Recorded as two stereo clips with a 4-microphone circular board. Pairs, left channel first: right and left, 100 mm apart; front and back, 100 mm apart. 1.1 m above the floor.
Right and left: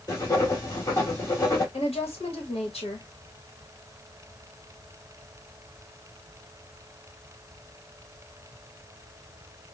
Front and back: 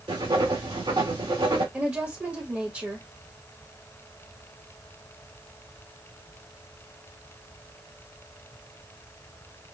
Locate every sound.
0.1 s writing: 150° right, 1.8 m
1.7 s a woman speaking: 110° right, 1.2 m